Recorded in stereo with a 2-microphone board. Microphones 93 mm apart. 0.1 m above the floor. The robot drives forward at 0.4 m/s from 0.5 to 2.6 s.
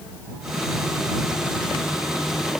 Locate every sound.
Only background noise.